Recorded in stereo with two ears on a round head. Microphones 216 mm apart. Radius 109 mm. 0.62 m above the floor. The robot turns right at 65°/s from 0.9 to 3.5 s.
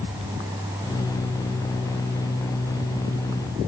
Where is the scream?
I don't hear a scream.